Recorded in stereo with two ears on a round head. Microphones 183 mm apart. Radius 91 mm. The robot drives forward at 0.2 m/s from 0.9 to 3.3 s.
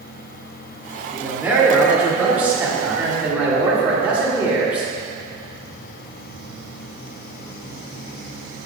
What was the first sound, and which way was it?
A man speaking, 10° right (ahead or behind).